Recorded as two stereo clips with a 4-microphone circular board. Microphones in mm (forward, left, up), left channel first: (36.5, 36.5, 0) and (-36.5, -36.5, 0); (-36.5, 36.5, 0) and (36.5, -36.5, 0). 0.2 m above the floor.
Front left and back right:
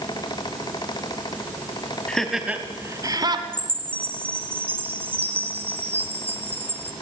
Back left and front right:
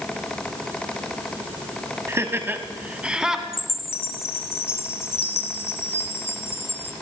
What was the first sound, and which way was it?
Laughter, 25° right.